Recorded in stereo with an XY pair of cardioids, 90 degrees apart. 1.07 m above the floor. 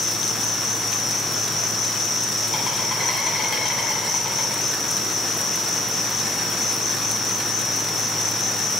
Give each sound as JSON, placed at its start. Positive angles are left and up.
{"t": 0.0, "sound": "an insect", "azimuth_deg": 65, "distance_m": 8.0}